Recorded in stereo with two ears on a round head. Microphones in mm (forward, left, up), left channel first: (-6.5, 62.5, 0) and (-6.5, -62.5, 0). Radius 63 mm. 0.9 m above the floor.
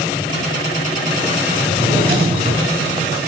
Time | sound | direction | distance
1.6 | a drawer | 40° right (ahead or behind) | 6.5 m